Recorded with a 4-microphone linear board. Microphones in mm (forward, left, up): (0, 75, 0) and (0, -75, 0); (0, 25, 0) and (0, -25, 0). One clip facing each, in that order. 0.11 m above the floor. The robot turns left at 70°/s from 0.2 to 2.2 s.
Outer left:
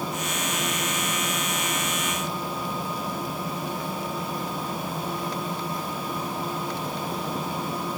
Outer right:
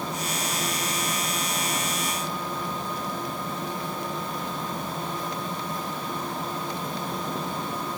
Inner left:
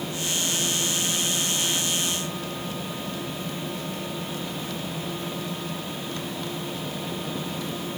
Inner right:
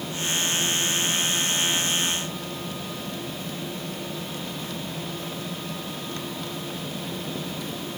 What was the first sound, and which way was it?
Only background noise.